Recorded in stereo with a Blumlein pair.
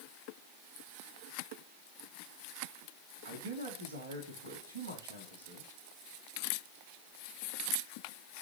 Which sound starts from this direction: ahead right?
A man speaking, at 3.2 s.